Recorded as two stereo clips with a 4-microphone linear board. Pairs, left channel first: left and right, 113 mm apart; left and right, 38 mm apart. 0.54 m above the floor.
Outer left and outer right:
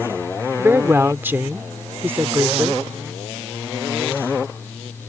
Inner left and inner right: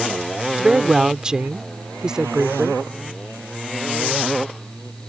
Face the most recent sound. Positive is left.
turn(degrees=-20)  # may be behind; listen again after turning